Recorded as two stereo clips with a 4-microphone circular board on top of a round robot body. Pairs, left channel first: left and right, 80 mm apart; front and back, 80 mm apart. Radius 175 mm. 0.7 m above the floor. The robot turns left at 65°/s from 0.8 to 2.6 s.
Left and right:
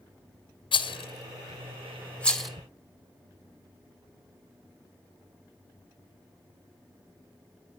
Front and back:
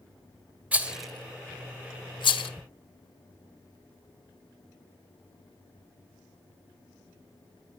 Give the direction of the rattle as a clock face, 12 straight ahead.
8 o'clock.